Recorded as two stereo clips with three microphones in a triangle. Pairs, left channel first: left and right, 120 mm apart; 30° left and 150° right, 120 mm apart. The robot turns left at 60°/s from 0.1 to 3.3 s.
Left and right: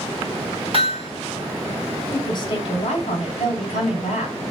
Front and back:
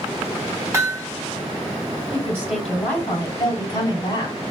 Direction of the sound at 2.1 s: 150° left.